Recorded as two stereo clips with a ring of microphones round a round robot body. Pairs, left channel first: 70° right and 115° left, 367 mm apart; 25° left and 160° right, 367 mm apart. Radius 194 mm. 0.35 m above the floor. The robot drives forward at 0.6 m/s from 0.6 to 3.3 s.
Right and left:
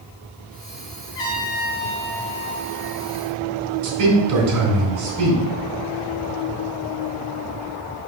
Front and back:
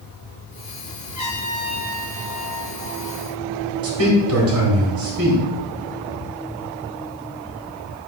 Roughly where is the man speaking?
Behind left.